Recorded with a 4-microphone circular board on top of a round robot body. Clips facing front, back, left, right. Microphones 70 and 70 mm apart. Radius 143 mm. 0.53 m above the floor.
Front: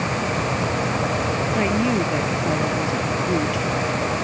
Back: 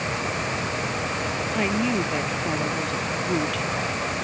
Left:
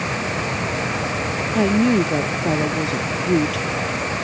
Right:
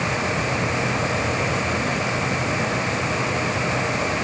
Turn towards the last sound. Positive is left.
turn(degrees=80)